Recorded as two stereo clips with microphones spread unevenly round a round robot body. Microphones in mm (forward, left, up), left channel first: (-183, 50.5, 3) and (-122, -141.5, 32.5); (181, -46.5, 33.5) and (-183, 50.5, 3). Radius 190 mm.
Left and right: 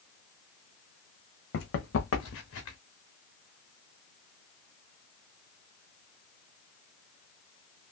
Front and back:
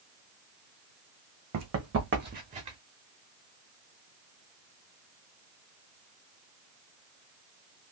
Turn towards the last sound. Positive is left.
turn(degrees=90)